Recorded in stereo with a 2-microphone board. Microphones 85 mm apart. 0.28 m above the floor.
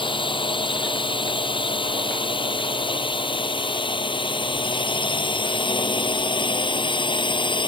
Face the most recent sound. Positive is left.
turn(degrees=70)  # may be behind; listen again after turning